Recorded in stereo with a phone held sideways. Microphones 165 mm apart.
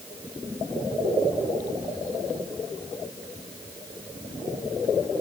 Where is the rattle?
No rattle in this recording.